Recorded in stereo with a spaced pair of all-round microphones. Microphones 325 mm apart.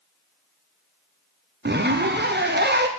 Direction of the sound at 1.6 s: 30° right (ahead or behind).